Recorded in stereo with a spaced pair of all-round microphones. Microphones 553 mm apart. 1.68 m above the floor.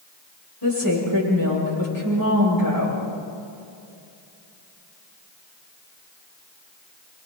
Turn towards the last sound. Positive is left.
turn(degrees=40)  # may be behind; listen again after turning